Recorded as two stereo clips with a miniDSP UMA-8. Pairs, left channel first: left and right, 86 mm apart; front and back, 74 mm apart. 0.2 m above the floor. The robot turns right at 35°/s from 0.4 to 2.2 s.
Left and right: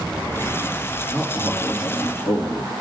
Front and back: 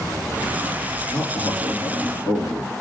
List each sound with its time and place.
1.1 s a man speaking: 15° right, 3.5 m; by 2.7 s 25° left, 3.5 m